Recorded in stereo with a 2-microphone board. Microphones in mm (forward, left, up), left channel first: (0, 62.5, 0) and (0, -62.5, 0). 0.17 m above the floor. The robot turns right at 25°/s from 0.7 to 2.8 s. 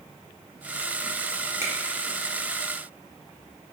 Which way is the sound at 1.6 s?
20° right (ahead or behind).